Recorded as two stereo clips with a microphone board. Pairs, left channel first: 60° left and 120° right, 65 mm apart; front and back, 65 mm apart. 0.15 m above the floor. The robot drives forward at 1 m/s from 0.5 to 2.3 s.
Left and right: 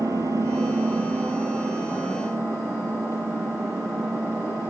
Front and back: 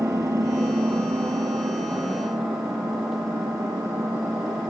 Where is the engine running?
150° right, 1.4 m; by 4.7 s 165° right, 3 m.